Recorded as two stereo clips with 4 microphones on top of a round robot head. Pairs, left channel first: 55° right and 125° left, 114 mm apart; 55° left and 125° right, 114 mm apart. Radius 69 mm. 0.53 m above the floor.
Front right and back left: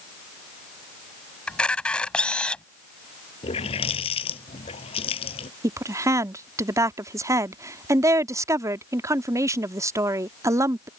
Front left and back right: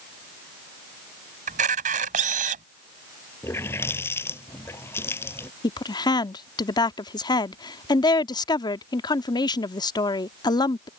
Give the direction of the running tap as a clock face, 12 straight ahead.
12 o'clock.